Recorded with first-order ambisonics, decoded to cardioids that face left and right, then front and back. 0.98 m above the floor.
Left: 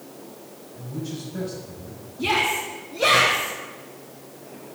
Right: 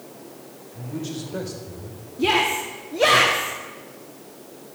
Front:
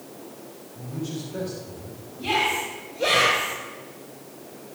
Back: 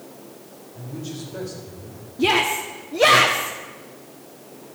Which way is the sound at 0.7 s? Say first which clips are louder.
Right 2 dB, front 1 dB; 100° right.